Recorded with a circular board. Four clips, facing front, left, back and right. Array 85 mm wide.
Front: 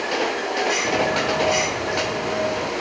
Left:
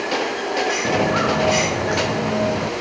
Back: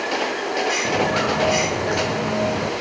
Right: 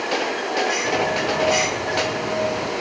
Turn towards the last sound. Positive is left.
turn(degrees=135)